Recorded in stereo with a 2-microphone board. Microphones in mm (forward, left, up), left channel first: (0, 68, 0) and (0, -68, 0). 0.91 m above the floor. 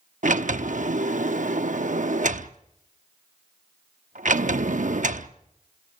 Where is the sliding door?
65° right (ahead or behind), 0.8 m.